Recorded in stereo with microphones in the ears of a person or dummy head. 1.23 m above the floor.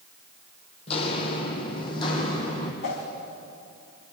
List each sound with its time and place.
0.9 s footsteps: 35° left (ahead or behind), 2.5 m; by 2.7 s 25° left (ahead or behind), 3.5 m
2.8 s a whoosh: 55° left (ahead or behind), 3 m